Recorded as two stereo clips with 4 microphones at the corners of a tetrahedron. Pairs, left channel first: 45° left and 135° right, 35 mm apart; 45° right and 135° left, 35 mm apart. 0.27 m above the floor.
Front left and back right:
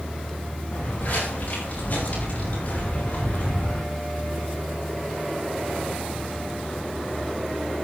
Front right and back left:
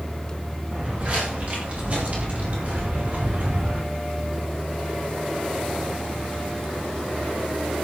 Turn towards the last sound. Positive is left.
turn(degrees=90)